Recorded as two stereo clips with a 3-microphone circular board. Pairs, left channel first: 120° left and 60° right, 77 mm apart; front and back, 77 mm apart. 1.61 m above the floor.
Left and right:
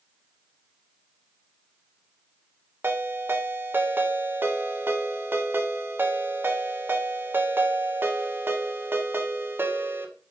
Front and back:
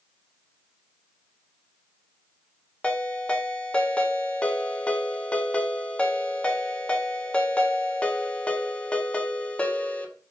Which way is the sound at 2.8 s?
55° right.